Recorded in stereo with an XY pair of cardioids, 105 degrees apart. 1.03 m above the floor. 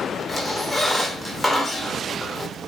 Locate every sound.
0.3 s a squeak: 20° left, 0.7 m